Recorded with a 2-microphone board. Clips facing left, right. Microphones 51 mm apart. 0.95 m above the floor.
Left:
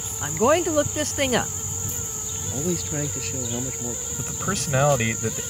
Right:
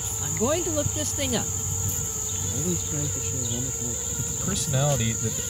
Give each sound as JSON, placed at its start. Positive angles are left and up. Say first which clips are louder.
{"t": 0.2, "sound": "a woman speaking", "louder": "left 6 dB", "side_deg": 50}
{"t": 2.5, "sound": "a man speaking", "louder": "left 4 dB", "side_deg": 75}
{"t": 4.2, "sound": "a man speaking", "louder": "left 4 dB", "side_deg": 55}